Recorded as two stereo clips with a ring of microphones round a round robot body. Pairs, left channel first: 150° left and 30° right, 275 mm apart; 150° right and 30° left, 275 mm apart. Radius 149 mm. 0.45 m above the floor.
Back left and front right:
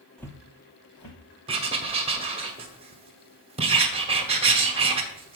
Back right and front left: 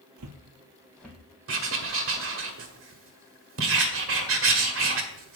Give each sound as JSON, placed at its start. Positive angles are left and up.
{"t": 0.2, "sound": "footsteps", "azimuth_deg": 60, "distance_m": 0.9}
{"t": 1.5, "sound": "writing", "azimuth_deg": 30, "distance_m": 1.3}